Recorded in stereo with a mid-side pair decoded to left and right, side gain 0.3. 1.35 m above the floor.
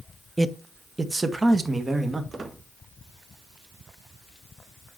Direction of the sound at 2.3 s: 40° right.